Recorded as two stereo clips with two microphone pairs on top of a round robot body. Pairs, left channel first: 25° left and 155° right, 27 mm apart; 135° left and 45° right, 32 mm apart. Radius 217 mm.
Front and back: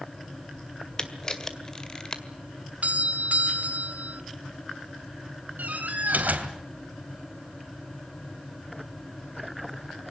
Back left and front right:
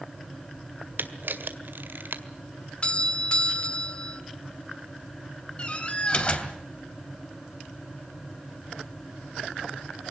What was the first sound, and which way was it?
A camera shutter, 40° right.